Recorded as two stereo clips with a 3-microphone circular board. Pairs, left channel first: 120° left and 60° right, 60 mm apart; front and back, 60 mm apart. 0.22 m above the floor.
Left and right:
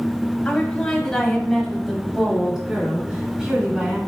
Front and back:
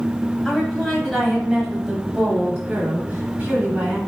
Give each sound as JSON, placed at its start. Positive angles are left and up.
{"t": 0.5, "sound": "a woman speaking", "azimuth_deg": 80, "distance_m": 1.3}